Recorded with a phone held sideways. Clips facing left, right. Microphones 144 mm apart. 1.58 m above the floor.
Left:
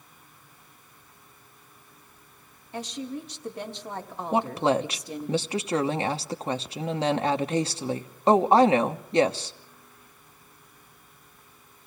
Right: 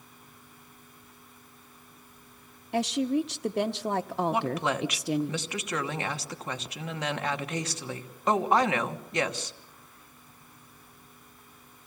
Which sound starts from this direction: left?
A woman speaking, at 4.3 s.